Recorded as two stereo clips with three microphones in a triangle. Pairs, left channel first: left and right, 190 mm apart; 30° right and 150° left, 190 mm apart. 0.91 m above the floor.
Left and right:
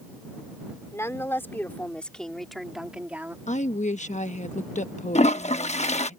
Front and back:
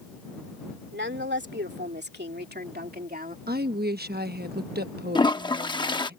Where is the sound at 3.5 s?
135° left.